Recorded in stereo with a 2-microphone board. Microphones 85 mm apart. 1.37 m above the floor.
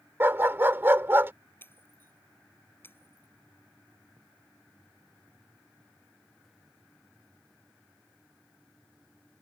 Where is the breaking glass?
25° left (ahead or behind).